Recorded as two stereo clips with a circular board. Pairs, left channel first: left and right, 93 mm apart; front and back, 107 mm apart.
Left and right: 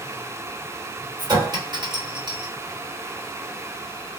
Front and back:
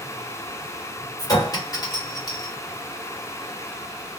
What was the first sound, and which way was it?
A clink, 50° right.